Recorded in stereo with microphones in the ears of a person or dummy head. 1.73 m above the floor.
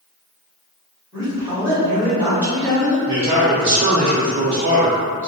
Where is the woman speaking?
20° right (ahead or behind), 1.2 m.